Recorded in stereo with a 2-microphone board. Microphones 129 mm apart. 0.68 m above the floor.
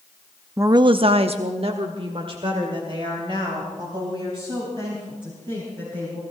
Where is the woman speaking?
20° right (ahead or behind), 0.6 m; by 6.2 s 35° right (ahead or behind), 6 m.